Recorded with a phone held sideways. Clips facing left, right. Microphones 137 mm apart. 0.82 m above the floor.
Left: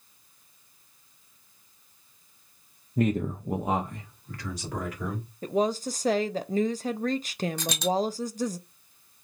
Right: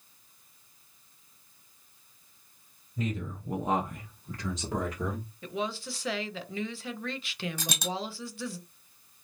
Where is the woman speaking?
40° left (ahead or behind), 0.5 m.